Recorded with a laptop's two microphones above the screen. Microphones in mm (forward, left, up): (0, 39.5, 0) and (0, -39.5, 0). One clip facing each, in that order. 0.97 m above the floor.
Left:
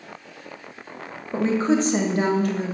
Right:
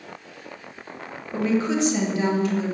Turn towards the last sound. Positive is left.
turn(degrees=55)  # may be behind; listen again after turning